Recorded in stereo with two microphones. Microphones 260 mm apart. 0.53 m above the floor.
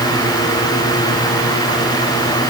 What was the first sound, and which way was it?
Only background noise.